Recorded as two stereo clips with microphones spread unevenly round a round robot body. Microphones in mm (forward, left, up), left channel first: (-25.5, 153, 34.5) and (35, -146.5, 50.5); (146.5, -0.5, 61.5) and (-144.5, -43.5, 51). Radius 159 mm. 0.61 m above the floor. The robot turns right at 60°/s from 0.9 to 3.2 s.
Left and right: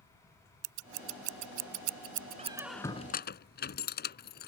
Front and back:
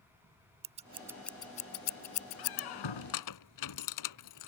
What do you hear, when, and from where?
0.6 s scissors: 100° right; by 2.6 s 5° left
2.4 s a squeak: 10° right; by 4.5 s 40° left